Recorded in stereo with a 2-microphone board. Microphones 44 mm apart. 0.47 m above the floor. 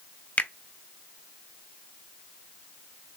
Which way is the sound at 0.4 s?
40° left (ahead or behind).